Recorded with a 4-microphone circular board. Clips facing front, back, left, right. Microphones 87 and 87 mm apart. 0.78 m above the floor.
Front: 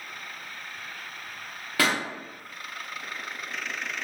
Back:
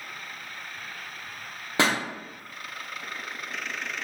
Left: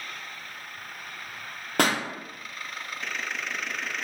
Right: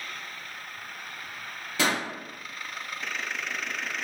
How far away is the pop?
About 0.5 m.